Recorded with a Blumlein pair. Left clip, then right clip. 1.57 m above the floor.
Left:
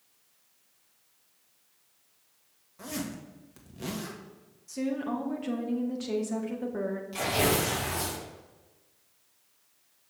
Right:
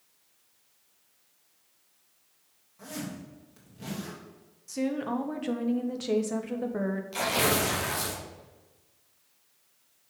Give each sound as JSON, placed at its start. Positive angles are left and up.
{"t": 2.8, "sound": "a zipper", "azimuth_deg": 70, "distance_m": 1.6}
{"t": 4.7, "sound": "a woman speaking", "azimuth_deg": -10, "distance_m": 1.1}
{"t": 7.1, "sound": "tearing paper", "azimuth_deg": -15, "distance_m": 2.5}